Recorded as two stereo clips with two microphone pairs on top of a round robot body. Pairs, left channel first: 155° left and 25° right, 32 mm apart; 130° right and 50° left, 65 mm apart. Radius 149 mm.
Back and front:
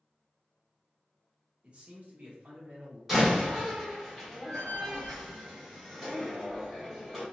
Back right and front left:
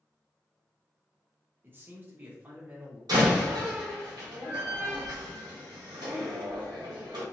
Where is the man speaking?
20° left, 0.8 m; by 3.0 s 15° right, 1.3 m.